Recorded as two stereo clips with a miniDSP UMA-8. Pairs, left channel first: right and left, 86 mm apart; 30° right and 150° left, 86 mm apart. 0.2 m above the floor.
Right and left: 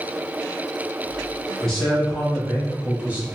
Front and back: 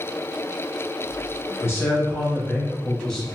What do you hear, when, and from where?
1.6 s a man speaking: 10° right, 1.8 m; by 3.3 s 50° left, 1.6 m